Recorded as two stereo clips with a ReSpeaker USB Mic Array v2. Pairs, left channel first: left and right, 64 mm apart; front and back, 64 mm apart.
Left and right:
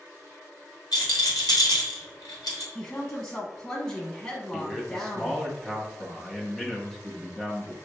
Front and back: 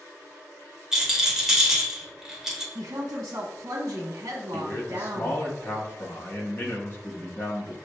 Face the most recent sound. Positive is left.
turn(degrees=10)